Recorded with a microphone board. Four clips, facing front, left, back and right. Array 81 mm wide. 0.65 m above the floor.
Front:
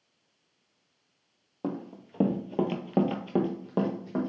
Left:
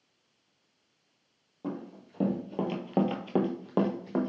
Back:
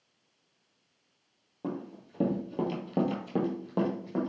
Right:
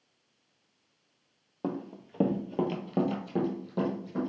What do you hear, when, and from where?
1.6 s running footsteps: 50° right, 0.9 m; by 4.3 s 85° left, 1.2 m